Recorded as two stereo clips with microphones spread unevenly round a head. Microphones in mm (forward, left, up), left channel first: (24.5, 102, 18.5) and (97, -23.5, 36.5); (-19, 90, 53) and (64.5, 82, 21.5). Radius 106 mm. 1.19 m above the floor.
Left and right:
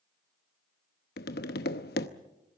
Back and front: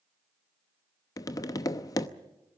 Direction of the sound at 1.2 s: 155° left.